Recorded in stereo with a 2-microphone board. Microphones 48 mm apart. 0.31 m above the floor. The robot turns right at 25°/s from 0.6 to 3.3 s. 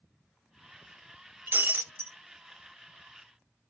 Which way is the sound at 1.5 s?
50° right (ahead or behind).